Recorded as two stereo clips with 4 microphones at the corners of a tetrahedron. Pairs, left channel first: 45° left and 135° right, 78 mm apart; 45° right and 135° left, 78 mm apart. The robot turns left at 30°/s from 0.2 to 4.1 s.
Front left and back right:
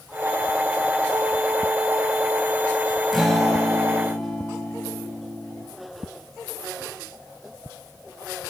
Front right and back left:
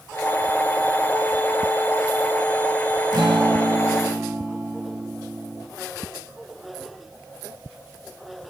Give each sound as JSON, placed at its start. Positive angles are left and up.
{"t": 3.1, "sound": "a guitar", "azimuth_deg": 135, "distance_m": 0.6}